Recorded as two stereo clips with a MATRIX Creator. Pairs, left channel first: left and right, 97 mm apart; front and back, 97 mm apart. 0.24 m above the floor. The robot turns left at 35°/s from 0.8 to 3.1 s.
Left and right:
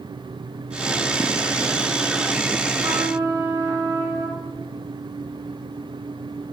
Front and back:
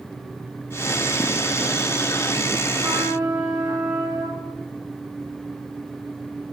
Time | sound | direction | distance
2.8 | a trumpet | 125° right | 3.5 m